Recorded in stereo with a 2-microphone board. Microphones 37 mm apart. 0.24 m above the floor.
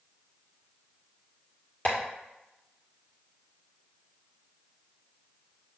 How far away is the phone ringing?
I don't hear a phone ringing.